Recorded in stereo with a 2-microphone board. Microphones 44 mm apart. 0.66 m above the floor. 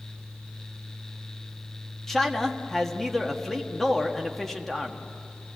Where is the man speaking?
5° left (ahead or behind), 1.3 m.